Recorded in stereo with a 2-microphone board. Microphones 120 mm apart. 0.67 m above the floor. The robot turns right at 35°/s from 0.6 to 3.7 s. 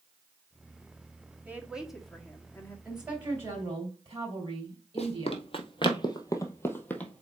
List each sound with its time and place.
1.4 s a woman speaking: 20° right, 1.5 m; by 2.8 s 25° left, 1.5 m
2.9 s a woman speaking: 5° right (ahead or behind), 4 m; by 5.5 s 30° right (ahead or behind), 4 m
5.0 s running footsteps: 60° left (ahead or behind), 1.4 m; by 7.2 s 10° left (ahead or behind), 1.3 m